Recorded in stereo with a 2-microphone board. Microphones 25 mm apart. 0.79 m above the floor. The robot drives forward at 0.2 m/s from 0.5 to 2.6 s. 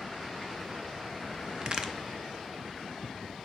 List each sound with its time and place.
1.6 s a crack: 35° right (ahead or behind), 0.5 m